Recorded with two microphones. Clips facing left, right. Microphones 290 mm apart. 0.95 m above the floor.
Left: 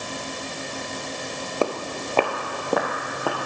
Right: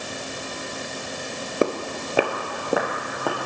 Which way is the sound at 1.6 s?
20° right (ahead or behind).